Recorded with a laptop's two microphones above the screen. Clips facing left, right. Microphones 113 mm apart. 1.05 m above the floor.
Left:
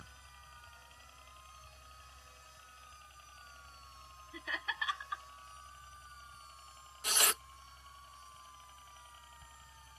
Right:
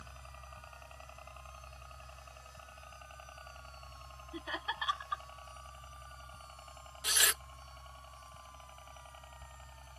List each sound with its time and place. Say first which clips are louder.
0.0 s a helicopter: right 5 dB; 60° right (ahead or behind); by 10.0 s 55° right (ahead or behind)
4.3 s laughter: right 2 dB; 20° right (ahead or behind)
7.0 s tearing paper: left 1 dB; 45° left (ahead or behind)